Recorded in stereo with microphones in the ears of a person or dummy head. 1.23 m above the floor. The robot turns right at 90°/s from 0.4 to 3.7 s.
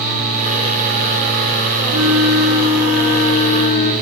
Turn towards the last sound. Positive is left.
turn(degrees=70)